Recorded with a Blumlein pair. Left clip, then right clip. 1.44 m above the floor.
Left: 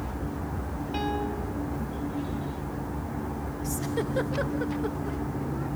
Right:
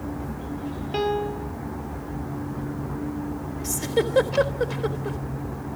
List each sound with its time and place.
0.9 s a piano: 70° right, 1.2 m
3.6 s a giggle: 35° right, 3.5 m